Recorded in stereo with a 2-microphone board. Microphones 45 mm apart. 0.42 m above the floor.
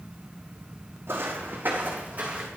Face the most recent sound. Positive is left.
turn(degrees=-25)  # may be behind; listen again after turning